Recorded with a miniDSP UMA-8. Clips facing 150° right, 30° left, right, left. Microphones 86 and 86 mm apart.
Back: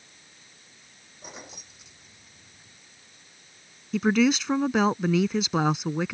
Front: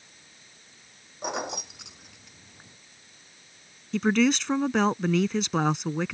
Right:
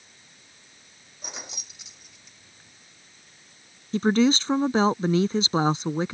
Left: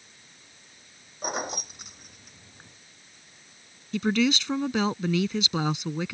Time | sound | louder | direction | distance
1.2 | keys jangling | front 13 dB, left 11 dB | 45° left | ?
3.9 | a woman speaking | back 1 dB, right 4 dB | 70° right | ?